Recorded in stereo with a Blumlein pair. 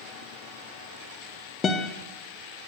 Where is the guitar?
20° left, 1.0 m.